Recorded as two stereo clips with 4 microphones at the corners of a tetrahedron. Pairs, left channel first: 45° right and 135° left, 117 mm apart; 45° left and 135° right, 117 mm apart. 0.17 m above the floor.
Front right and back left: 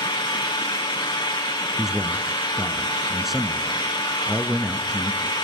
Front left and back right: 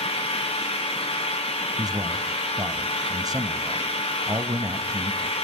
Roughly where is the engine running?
Ahead.